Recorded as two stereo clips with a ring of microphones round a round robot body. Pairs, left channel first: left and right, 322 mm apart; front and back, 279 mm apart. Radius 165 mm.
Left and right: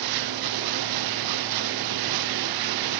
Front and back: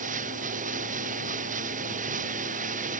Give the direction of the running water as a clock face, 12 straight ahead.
4 o'clock.